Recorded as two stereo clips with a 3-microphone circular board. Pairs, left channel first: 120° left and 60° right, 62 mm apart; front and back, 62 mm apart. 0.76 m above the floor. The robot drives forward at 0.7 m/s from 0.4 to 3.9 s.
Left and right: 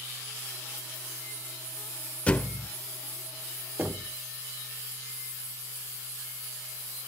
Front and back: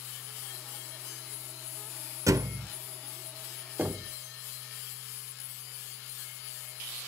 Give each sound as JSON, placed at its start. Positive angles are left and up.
{"t": 2.3, "sound": "a thud", "azimuth_deg": -175, "distance_m": 0.6}
{"t": 3.8, "sound": "knocking", "azimuth_deg": -120, "distance_m": 1.2}